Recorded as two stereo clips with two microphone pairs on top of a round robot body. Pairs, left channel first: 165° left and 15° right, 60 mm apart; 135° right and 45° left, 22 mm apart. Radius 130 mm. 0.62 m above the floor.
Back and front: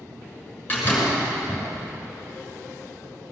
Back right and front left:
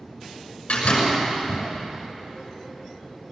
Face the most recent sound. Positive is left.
turn(degrees=-135)